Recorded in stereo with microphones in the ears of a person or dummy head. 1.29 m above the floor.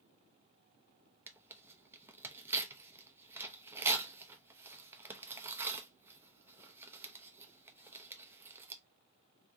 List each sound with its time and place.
1.3 s tearing paper: 15° right (ahead or behind), 0.8 m